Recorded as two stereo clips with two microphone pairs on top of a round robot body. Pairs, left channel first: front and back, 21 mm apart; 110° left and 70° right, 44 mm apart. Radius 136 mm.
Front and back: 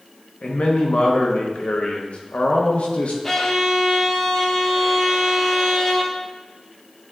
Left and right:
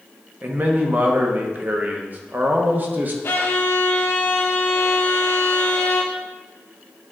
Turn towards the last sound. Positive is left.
turn(degrees=80)